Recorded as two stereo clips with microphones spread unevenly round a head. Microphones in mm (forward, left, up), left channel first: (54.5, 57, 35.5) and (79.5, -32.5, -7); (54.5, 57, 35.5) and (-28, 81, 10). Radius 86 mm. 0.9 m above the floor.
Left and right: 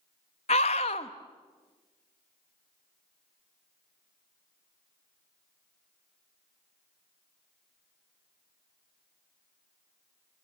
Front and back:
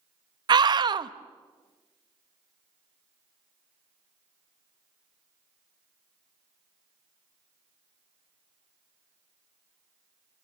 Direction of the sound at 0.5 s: 160° left.